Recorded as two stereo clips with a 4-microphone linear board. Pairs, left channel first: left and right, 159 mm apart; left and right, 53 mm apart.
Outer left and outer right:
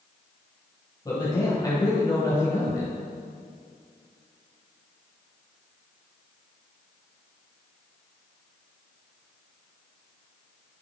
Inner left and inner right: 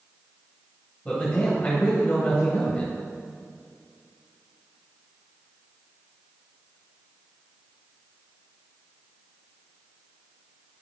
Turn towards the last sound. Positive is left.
turn(degrees=20)  # may be behind; listen again after turning